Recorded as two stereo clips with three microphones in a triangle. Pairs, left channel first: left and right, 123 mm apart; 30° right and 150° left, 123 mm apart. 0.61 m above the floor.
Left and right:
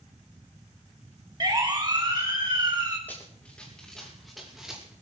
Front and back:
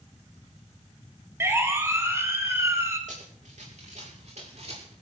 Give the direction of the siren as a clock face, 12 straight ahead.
5 o'clock.